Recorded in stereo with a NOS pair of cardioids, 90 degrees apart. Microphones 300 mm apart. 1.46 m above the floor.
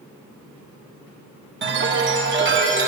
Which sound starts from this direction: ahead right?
A chime, at 1.6 s.